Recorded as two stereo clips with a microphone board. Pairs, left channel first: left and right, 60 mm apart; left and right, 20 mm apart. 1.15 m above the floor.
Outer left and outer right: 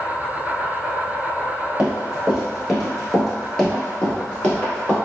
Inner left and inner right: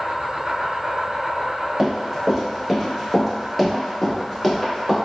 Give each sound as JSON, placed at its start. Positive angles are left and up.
{"t": 0.0, "sound": "an insect", "side_deg": -15, "distance_m": 1.4}
{"t": 1.8, "sound": "running footsteps", "side_deg": -20, "distance_m": 1.2}